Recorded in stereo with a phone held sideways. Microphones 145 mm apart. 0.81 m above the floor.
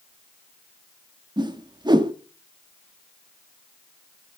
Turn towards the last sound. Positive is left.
turn(degrees=-30)  # may be behind; listen again after turning